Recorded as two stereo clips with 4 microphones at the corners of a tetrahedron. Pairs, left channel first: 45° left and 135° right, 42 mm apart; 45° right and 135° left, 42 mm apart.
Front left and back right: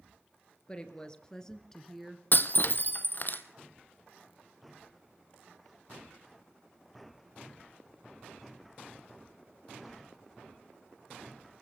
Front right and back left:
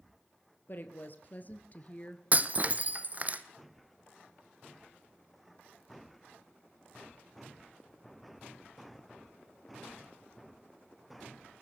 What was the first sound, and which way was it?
A woman speaking, 15° right.